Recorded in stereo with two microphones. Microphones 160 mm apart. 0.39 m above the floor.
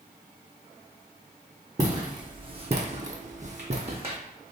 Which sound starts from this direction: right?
Footsteps, at 1.8 s.